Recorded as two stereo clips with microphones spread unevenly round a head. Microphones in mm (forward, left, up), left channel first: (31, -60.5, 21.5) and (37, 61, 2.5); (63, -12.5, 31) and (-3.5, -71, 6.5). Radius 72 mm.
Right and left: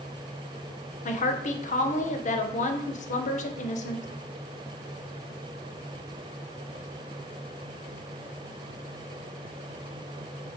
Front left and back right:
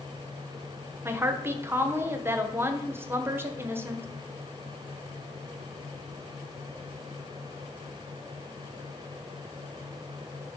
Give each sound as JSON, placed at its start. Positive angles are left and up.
{"t": 1.1, "sound": "a woman speaking", "azimuth_deg": -70, "distance_m": 0.9}